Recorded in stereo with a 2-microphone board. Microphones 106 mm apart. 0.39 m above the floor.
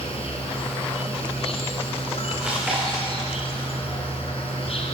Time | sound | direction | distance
0.0 | an insect | 65° left (ahead or behind) | 3 m
2.4 | chewing | 10° right (ahead or behind) | 7.5 m